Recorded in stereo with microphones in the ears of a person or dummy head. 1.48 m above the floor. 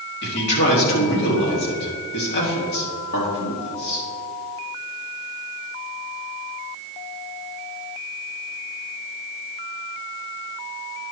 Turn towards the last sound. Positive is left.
turn(degrees=65)  # may be behind; listen again after turning